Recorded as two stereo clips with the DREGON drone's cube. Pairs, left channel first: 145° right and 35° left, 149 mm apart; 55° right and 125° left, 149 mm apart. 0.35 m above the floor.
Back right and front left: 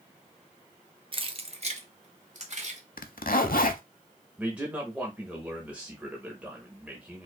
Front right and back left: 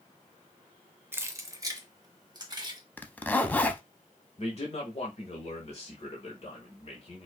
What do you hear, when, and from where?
1.1 s keys jangling: 60° left, 0.6 m; by 2.8 s 65° left, 1.6 m
3.0 s a zipper: 135° right, 0.6 m
4.4 s a man speaking: 45° right, 1.2 m